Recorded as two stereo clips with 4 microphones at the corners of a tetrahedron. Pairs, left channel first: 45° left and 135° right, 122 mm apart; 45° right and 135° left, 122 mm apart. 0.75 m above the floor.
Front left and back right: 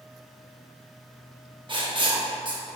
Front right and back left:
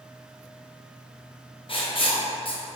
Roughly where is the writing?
Right.